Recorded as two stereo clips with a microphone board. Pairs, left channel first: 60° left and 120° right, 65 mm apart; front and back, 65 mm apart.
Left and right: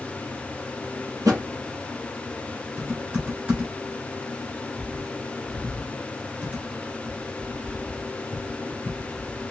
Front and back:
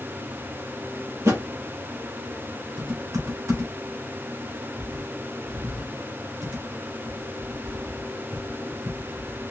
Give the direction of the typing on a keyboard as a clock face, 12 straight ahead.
6 o'clock.